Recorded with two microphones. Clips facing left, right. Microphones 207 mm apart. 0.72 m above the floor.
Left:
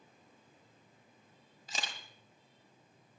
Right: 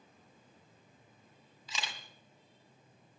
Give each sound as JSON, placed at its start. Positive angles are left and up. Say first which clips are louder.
{"t": 1.7, "sound": "a camera shutter", "louder": "even", "side_deg": 50, "distance_m": 1.5}